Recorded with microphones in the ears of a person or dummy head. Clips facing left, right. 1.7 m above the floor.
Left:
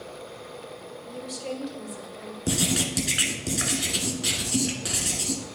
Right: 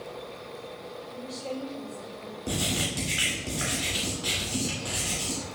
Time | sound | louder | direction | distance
1.1 | a woman speaking | left 3 dB | 70° left (ahead or behind) | 2.5 m
2.5 | writing | left 4 dB | 35° left (ahead or behind) | 1.7 m